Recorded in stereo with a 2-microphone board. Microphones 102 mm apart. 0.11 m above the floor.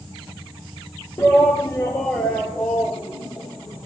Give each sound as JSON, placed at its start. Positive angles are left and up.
{"t": 1.2, "sound": "a shout", "side_deg": 25, "distance_m": 1.9}